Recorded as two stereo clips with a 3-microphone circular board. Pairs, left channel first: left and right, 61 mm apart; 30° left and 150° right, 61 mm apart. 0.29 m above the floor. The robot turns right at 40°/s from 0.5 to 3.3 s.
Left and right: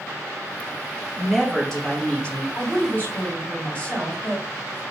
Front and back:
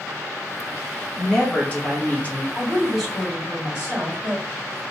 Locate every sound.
1.2 s a woman speaking: straight ahead, 1.0 m; by 2.5 s 50° left, 1.0 m
2.5 s a woman speaking: 115° left, 2 m; by 4.8 s 145° left, 2 m